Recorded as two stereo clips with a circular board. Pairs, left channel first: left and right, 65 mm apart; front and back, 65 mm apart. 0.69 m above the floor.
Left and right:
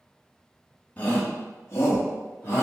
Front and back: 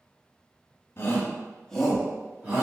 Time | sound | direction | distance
1.0 | a shout | 30° left | 1.0 m